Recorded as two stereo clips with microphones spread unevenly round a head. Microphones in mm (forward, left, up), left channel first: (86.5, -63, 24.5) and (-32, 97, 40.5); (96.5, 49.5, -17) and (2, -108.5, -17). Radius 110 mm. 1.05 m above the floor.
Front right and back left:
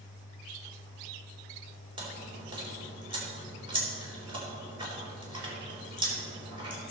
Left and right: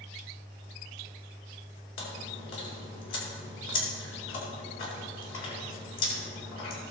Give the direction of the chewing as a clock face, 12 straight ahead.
10 o'clock.